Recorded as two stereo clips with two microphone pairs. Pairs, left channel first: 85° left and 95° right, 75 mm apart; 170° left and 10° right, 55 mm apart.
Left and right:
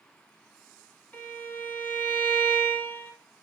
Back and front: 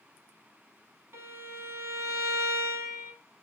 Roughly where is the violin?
Ahead.